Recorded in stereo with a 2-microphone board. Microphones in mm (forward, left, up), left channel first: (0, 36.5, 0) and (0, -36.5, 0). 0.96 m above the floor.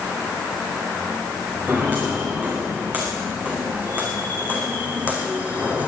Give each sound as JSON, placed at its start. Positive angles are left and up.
{"t": 1.7, "sound": "footsteps", "side_deg": -20, "distance_m": 6.0}